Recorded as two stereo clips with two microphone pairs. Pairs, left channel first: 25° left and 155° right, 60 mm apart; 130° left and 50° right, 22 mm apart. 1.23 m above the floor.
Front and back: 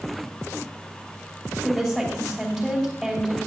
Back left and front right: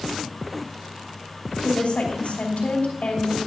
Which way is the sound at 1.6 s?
115° left.